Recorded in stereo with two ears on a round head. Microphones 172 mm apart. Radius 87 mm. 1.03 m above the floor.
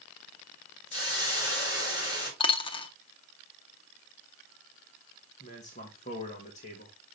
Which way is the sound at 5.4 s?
40° left (ahead or behind).